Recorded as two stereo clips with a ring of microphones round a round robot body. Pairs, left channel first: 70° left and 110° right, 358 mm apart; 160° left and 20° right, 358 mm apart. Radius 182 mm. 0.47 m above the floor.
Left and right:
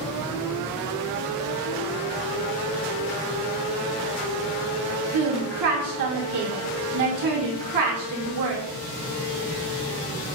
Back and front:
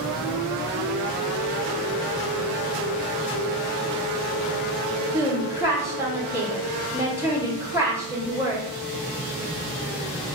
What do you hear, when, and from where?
5.1 s a woman speaking: 105° right, 1.4 m